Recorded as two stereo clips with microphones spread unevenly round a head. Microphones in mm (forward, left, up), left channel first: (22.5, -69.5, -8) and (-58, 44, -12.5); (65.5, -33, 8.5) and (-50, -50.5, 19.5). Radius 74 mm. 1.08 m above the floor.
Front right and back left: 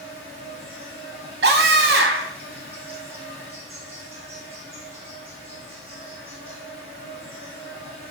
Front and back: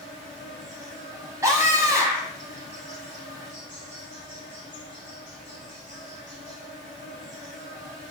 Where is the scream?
115° left, 0.7 m.